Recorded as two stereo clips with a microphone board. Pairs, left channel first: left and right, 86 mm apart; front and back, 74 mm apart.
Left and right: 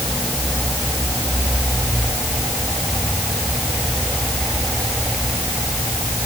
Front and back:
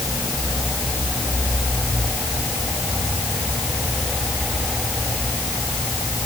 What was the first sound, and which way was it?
Only background noise.